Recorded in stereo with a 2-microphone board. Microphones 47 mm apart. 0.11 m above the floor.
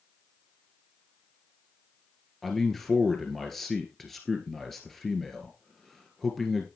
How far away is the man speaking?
About 1.7 m.